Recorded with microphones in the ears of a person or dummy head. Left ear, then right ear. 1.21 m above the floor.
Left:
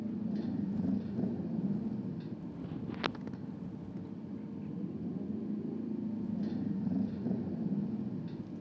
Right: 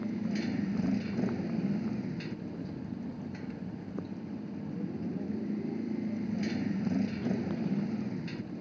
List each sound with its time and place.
0.0 s a motorcycle: 70° right (ahead or behind)